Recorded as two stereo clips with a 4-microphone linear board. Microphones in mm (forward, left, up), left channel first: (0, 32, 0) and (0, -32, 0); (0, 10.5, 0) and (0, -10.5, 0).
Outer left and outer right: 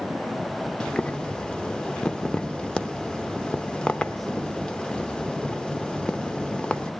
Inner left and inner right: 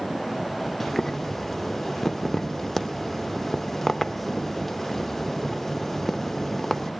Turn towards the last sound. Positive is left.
turn(degrees=15)  # may be behind; listen again after turning